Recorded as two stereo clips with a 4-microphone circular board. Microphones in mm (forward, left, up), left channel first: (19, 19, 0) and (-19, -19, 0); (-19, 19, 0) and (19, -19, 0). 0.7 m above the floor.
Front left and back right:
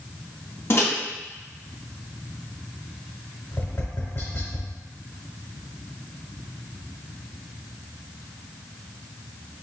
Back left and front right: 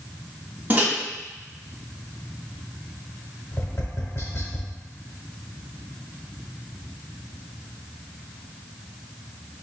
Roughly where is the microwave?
Ahead.